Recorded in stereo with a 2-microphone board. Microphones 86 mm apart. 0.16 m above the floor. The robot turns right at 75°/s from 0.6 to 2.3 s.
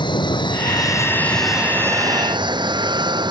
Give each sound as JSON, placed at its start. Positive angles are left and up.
{"t": 0.0, "sound": "an aircraft", "azimuth_deg": 115}